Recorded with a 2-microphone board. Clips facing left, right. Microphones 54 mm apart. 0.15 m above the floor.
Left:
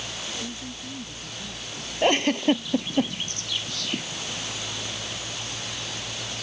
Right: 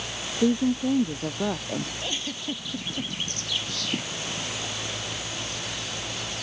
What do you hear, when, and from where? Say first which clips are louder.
0.4 s a woman speaking: right 14 dB; 65° right (ahead or behind)
2.0 s a giggle: left 12 dB; 60° left (ahead or behind)